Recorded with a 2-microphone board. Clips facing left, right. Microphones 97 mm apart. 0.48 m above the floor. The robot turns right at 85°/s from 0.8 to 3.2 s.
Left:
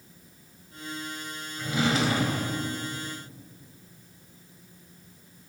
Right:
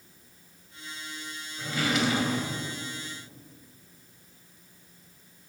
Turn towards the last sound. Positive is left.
turn(degrees=145)